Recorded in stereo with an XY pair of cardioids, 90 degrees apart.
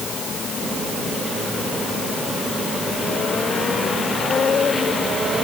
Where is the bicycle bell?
I don't hear a bicycle bell.